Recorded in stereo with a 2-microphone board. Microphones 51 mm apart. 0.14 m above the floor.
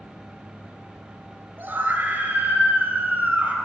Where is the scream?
40° right (ahead or behind), 2.5 m; by 3.5 s 25° right (ahead or behind), 4 m.